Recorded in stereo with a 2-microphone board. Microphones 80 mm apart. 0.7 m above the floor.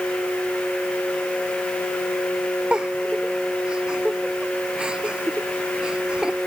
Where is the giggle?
10° right (ahead or behind).